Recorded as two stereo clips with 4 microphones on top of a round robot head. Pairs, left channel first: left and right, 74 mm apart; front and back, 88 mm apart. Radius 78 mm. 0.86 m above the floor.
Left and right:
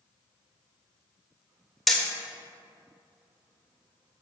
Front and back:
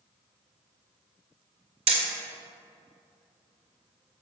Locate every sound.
1.9 s hammering: straight behind, 1.9 m